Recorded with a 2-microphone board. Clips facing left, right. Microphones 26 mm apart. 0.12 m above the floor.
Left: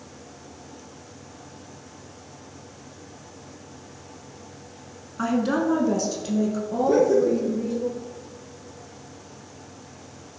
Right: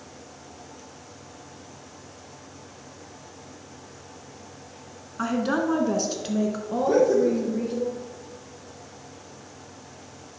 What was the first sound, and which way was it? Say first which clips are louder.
A woman speaking: left 2 dB; 5° right (ahead or behind).